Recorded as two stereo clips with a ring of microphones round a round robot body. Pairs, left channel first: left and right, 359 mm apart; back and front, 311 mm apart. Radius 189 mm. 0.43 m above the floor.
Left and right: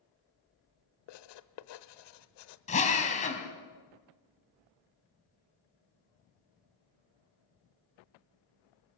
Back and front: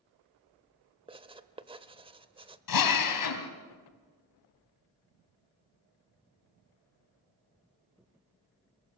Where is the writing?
75° left, 1.0 m.